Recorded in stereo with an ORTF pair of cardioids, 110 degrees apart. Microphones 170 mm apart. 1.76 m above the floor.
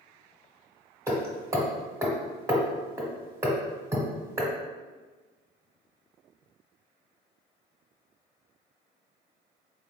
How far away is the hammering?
About 1.2 m.